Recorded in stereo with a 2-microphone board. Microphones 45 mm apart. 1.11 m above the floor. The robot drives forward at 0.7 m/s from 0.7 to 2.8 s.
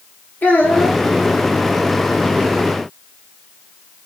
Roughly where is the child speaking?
Left.